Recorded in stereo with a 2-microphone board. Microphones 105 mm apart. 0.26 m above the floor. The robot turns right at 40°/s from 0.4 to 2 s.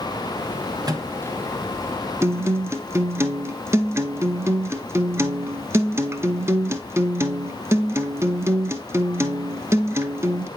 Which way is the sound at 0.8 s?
40° right (ahead or behind).